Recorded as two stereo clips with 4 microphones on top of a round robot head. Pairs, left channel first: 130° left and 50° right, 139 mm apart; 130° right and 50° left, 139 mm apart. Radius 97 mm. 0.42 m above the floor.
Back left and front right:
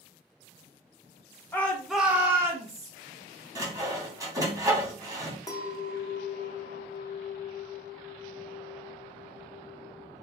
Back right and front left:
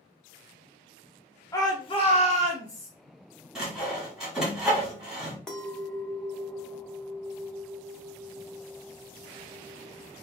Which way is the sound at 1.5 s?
170° right.